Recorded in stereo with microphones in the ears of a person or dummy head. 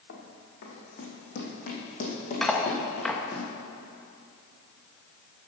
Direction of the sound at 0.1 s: 65° left (ahead or behind).